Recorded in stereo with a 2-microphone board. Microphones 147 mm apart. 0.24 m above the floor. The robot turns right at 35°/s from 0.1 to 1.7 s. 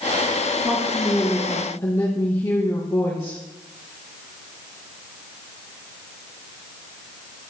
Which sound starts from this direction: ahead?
A woman speaking, at 0.6 s.